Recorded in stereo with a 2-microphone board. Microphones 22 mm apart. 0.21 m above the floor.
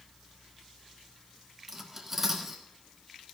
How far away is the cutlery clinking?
About 1.8 m.